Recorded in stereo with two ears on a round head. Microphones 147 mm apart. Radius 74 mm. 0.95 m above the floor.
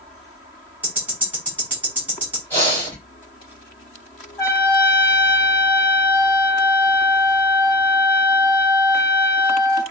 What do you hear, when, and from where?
0.8 s ticking: 10° right (ahead or behind), 1.9 m
2.5 s breathing: 10° left (ahead or behind), 2.5 m
4.4 s a trumpet: 15° left (ahead or behind), 1.5 m